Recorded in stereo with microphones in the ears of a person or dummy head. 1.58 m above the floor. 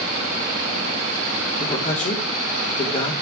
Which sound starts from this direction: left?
A man speaking, at 1.6 s.